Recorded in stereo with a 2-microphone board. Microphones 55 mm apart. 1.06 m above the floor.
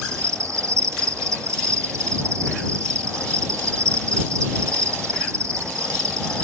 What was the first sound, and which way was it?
An insect, 70° right (ahead or behind).